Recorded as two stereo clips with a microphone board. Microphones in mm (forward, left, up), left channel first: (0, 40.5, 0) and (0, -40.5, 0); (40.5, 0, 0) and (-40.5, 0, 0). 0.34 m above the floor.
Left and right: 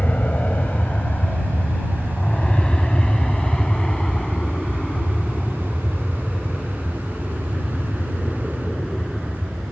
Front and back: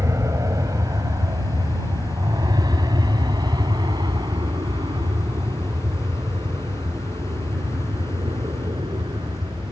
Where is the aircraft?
155° left; by 9.7 s straight behind.